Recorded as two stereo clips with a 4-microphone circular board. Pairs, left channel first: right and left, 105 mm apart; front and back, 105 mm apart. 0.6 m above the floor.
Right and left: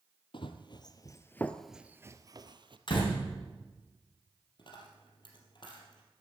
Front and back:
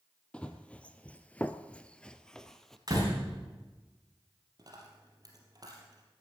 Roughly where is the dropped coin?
Behind right.